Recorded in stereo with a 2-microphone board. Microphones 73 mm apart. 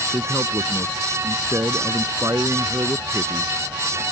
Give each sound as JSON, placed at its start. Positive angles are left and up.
{"t": 0.1, "sound": "a man speaking", "side_deg": -45}